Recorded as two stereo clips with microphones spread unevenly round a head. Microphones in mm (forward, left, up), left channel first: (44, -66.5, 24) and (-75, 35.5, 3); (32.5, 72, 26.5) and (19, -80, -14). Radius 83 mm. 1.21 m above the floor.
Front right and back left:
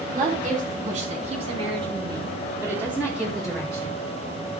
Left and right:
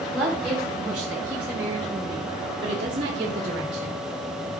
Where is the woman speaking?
175° left, 5 m; by 4.0 s 120° right, 3.5 m.